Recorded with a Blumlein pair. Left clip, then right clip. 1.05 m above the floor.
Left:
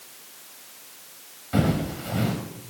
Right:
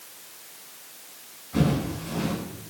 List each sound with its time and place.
1.5 s footsteps: 35° left, 6.5 m